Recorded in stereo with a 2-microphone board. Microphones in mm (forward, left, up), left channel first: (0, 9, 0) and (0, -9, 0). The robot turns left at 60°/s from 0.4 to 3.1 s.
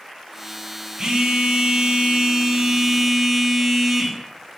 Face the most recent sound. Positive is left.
turn(degrees=-175)